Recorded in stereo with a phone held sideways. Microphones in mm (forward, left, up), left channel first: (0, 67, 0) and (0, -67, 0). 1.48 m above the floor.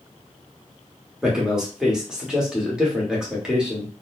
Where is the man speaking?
5° right (ahead or behind), 1.4 m.